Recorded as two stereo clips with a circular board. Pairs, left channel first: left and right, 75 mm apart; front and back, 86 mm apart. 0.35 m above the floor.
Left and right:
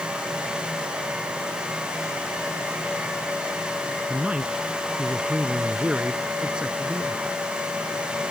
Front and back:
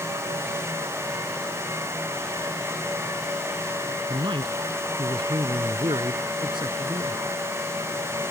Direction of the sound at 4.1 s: 165° right.